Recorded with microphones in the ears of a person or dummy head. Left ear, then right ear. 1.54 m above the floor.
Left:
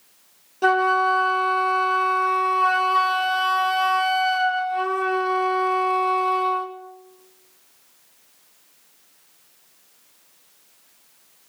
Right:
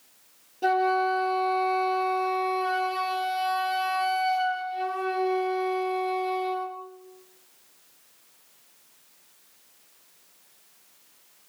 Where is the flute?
45° left (ahead or behind), 1.6 m.